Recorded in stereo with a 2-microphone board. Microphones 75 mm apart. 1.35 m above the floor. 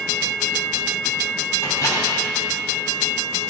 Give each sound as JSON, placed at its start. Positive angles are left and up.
{"t": 1.6, "sound": "a microwave", "side_deg": 40, "distance_m": 3.0}